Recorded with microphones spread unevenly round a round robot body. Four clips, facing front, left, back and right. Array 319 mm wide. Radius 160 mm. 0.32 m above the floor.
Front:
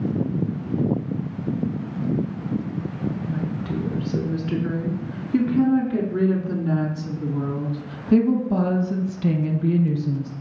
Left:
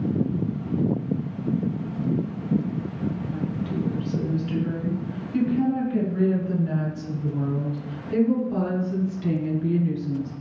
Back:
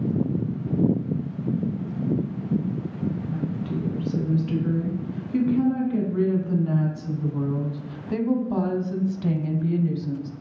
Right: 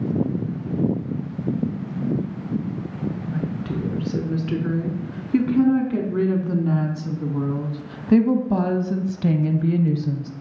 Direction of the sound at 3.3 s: 65° right.